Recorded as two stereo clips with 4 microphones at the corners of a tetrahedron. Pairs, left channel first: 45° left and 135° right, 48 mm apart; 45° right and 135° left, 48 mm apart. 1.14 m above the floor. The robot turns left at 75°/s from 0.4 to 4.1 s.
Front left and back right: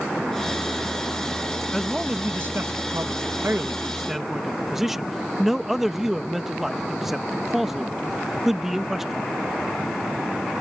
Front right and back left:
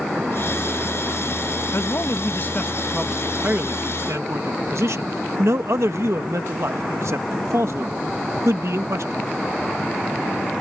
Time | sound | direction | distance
1.7 | a man speaking | 40° right | ?